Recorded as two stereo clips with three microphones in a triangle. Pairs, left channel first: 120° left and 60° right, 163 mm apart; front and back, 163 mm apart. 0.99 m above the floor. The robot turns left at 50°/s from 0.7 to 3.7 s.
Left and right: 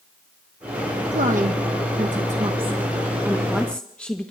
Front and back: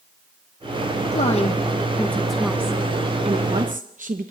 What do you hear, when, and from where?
1.1 s a woman speaking: 30° right, 0.7 m; by 4.3 s 160° right, 0.7 m